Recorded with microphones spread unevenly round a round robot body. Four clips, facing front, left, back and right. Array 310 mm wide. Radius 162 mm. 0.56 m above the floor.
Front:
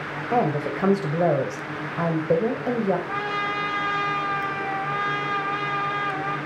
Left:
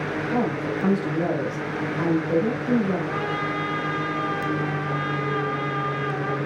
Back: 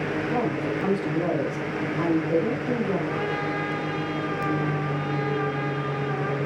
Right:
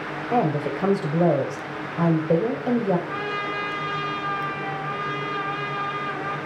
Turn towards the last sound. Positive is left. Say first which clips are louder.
# left 2 dB, even
turn(degrees=20)